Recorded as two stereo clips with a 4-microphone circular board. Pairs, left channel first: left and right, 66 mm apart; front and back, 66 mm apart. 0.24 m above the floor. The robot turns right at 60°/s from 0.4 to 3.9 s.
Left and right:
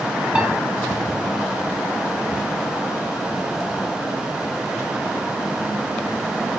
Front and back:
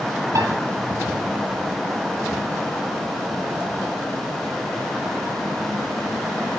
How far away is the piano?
About 3 m.